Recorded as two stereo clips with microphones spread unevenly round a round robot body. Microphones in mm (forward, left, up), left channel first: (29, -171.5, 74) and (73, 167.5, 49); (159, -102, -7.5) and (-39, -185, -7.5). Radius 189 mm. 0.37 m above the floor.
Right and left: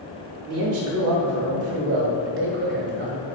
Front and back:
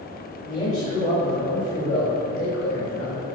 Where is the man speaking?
90° left, 1.0 m; by 3.3 s 25° left, 1.9 m.